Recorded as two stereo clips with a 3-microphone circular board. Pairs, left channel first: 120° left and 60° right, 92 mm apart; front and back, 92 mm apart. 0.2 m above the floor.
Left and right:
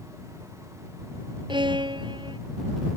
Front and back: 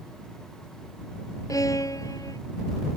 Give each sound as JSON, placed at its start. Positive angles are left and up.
{"t": 1.5, "sound": "a violin", "azimuth_deg": -45}